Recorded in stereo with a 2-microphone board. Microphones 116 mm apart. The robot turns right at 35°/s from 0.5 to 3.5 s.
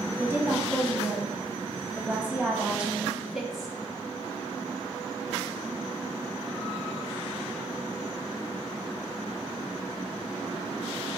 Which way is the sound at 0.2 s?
20° right (ahead or behind).